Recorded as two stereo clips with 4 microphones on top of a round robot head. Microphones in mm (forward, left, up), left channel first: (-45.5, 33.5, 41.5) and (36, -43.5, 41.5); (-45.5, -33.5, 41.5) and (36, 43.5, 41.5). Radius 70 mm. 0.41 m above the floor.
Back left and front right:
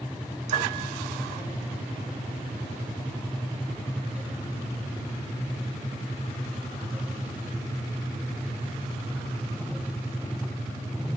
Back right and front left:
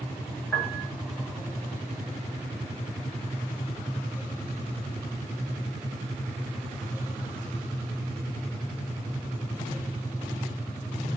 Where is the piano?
65° right, 1.5 m.